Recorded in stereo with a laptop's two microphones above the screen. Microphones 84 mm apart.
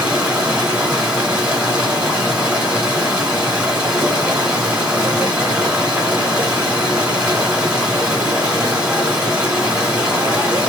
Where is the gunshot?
I don't hear a gunshot.